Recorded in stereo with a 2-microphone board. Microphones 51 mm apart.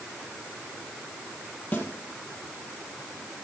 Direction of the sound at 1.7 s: 30° left (ahead or behind).